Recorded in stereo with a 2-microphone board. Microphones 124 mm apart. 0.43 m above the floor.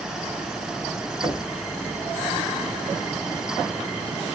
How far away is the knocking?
About 1.5 m.